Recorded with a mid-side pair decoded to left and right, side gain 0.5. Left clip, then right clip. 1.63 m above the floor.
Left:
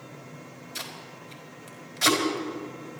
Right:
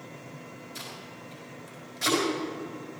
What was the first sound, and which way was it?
Tape being pulled, 40° left.